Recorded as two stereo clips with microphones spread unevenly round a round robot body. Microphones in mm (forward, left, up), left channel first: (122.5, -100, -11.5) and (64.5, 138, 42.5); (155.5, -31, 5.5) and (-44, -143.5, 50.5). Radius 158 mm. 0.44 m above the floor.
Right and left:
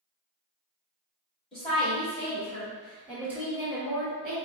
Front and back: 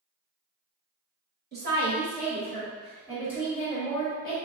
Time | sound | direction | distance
1.5 | a woman speaking | 120° right | 1.6 m